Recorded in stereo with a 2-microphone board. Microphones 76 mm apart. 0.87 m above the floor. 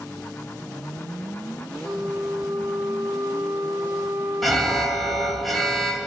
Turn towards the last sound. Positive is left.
turn(degrees=0)  # may be behind; listen again after turning